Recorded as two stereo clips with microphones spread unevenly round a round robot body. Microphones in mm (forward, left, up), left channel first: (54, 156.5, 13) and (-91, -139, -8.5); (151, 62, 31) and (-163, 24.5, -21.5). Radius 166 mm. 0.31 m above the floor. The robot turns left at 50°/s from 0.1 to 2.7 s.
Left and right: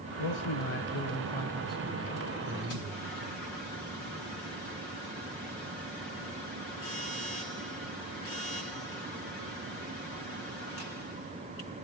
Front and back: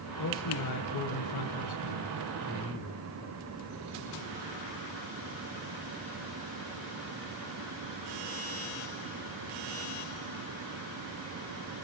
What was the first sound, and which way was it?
A man speaking, 50° left.